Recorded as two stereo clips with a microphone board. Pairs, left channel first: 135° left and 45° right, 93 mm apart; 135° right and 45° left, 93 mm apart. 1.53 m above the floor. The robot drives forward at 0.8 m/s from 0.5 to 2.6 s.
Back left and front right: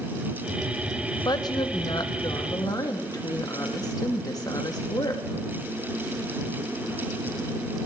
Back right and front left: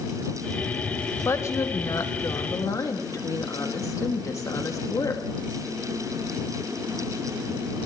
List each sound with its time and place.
1.2 s a woman speaking: 170° left, 1.0 m; by 5.2 s 175° left, 2.0 m